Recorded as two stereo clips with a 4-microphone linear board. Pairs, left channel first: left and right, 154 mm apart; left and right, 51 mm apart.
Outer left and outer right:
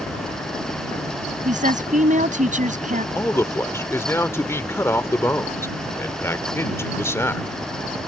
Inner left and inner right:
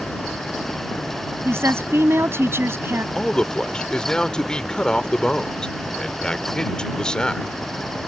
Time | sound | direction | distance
1.4 | a woman speaking | 55° right (ahead or behind) | ?
3.1 | a man speaking | 20° left (ahead or behind) | ?